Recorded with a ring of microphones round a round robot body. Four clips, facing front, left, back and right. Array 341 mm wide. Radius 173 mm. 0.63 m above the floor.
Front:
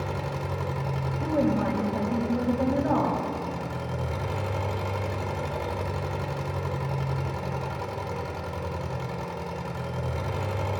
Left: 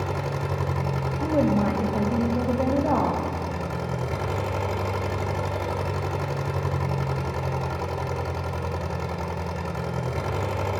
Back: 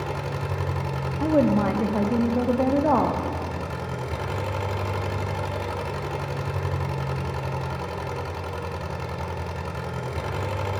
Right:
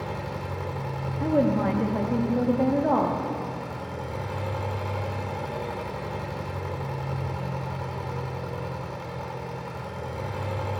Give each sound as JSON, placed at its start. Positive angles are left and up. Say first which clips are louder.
{"t": 0.0, "sound": "an engine running", "louder": "left 4 dB, back 2 dB", "azimuth_deg": 100, "distance_m": 0.8}
{"t": 1.2, "sound": "a woman speaking", "louder": "even, back 5 dB", "azimuth_deg": -165, "distance_m": 0.8}